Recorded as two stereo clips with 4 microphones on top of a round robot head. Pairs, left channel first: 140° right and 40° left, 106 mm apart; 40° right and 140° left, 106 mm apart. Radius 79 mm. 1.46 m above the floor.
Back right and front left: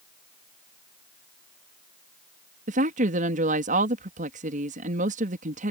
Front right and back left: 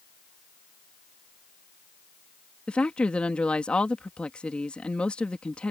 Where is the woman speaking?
45° left.